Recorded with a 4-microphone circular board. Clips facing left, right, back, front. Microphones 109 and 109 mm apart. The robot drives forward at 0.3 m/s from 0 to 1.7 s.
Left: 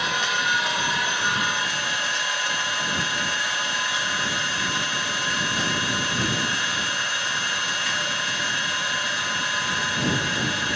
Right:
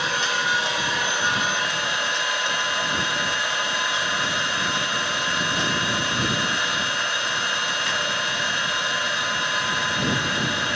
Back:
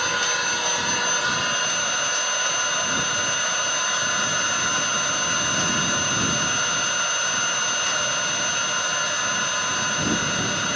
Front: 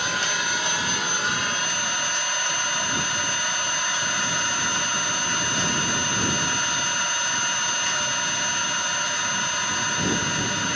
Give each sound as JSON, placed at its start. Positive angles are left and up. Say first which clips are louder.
{"t": 0.0, "sound": "an engine running", "louder": "right 1 dB, back 2 dB", "azimuth_deg": -150, "distance_m": 1.7}